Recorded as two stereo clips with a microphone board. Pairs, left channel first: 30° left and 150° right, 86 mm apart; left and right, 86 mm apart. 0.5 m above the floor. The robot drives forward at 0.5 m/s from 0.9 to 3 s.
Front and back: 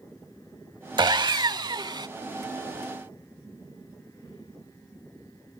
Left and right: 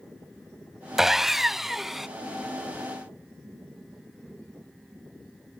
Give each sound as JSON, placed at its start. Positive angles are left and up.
{"t": 1.0, "sound": "sawing", "azimuth_deg": -175}